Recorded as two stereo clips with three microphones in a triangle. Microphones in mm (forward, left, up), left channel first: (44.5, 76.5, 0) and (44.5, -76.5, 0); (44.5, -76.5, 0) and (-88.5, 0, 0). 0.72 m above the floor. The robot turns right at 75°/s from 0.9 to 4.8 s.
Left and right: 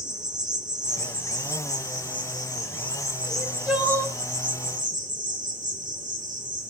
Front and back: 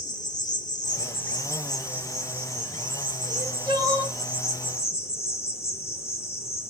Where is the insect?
5° right, 1.3 m; by 6.7 s 75° right, 1.3 m.